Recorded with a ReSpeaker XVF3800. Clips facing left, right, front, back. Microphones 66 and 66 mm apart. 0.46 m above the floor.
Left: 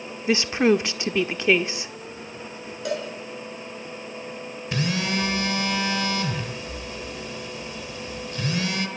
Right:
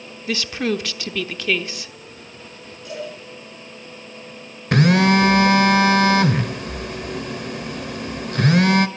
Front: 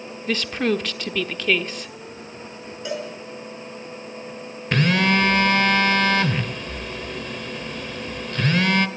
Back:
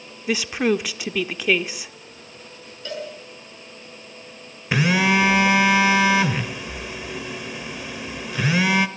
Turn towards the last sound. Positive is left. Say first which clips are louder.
# right 11 dB, back 1 dB
turn(degrees=-100)